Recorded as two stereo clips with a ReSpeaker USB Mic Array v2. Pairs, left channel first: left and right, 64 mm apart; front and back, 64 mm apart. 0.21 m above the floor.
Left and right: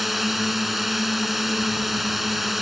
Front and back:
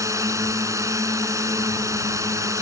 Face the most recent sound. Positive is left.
turn(degrees=180)